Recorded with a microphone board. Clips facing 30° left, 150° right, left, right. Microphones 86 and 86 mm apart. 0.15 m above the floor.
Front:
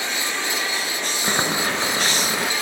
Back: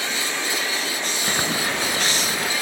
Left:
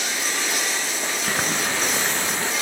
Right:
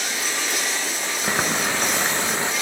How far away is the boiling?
About 0.9 m.